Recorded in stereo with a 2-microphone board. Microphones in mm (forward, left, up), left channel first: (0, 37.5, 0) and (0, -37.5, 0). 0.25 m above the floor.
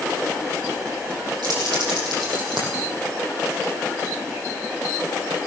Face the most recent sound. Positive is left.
turn(degrees=-80)